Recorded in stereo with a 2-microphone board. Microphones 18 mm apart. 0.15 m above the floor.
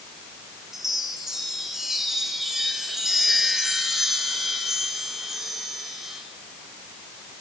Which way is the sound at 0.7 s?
20° right (ahead or behind).